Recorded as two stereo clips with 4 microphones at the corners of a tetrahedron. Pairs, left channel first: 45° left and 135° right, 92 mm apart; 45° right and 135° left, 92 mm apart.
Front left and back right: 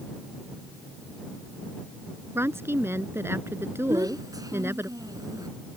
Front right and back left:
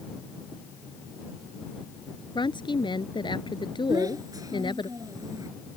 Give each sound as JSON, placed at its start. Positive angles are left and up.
{"t": 2.4, "sound": "a woman speaking", "azimuth_deg": -75}
{"t": 3.9, "sound": "a child speaking", "azimuth_deg": 180}